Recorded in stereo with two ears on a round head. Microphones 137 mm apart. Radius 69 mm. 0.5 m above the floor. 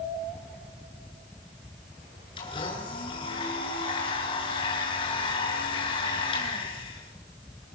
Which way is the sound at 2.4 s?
35° left (ahead or behind).